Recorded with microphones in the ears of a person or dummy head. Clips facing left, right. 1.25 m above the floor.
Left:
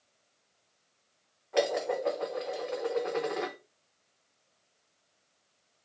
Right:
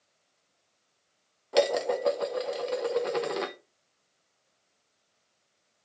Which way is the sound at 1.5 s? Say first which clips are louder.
Right 4 dB; 55° right (ahead or behind).